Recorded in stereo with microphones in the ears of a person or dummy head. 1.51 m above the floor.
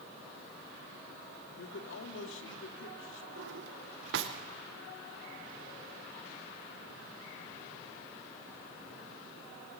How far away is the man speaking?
About 3 m.